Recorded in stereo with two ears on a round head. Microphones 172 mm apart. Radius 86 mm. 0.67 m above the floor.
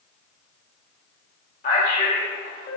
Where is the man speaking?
45° left (ahead or behind), 2 m.